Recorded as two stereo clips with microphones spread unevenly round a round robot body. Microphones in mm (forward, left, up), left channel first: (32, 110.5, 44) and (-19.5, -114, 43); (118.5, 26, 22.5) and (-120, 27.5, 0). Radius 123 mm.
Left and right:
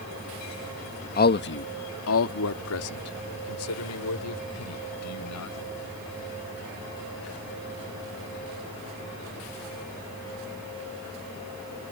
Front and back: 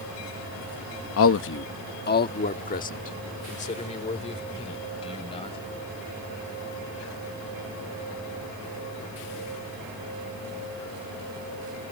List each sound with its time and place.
1.2 s a man speaking: 30° left; by 5.6 s 65° left